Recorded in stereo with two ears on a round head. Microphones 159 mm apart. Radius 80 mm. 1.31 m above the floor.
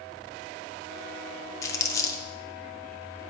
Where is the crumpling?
15° left (ahead or behind), 0.6 m.